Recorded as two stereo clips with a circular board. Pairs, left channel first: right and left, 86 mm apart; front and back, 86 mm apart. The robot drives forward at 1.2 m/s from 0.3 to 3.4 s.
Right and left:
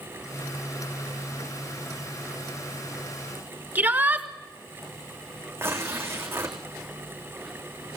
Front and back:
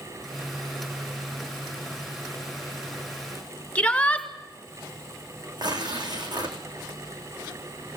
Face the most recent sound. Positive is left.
turn(degrees=150)